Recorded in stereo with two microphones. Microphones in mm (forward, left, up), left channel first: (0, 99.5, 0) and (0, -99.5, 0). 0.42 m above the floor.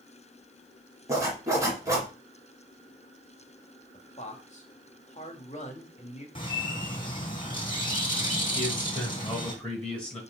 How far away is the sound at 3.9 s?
About 1.6 m.